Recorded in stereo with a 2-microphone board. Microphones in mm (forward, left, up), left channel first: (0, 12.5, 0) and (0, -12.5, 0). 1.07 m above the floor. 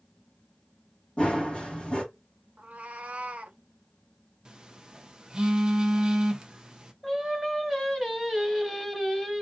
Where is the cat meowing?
60° right (ahead or behind), 0.6 m.